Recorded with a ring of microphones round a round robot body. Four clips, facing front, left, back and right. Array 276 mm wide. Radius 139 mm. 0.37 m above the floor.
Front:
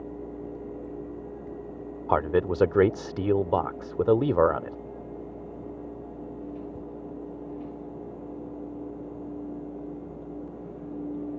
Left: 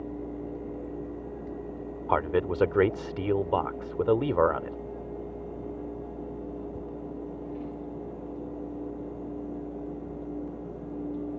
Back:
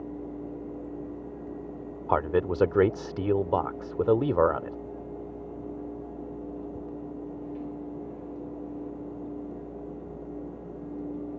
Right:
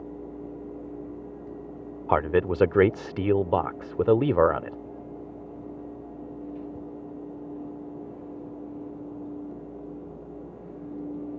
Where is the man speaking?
70° right.